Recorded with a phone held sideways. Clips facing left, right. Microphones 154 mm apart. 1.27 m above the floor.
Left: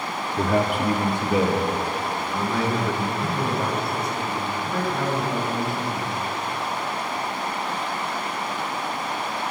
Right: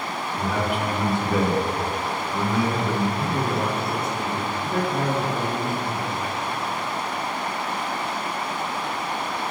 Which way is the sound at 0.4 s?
65° left (ahead or behind).